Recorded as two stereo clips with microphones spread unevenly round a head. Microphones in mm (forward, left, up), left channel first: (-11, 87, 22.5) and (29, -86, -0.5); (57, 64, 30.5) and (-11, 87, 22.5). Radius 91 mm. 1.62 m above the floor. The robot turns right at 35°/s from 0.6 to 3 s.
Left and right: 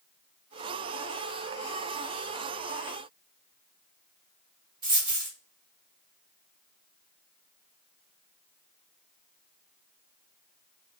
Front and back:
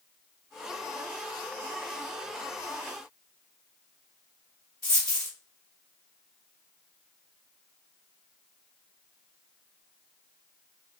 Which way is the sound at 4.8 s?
60° right.